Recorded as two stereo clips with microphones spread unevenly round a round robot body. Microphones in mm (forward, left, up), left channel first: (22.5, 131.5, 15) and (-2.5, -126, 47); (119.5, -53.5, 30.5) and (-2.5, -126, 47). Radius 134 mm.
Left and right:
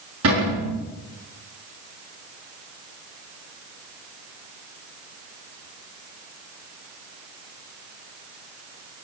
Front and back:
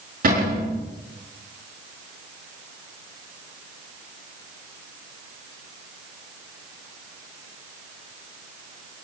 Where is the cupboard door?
135° right, 6.5 m.